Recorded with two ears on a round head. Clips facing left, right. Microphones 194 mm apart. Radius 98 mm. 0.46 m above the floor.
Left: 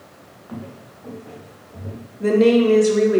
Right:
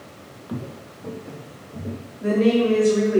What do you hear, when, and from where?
0.5 s footsteps: 35° right (ahead or behind), 0.9 m; by 2.1 s 30° right (ahead or behind), 2.5 m
2.2 s a woman speaking: 60° left (ahead or behind), 1.3 m